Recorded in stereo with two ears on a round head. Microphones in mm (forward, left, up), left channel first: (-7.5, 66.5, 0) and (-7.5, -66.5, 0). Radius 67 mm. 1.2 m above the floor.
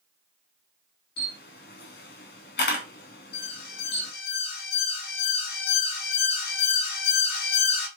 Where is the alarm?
65° left (ahead or behind), 4.5 m.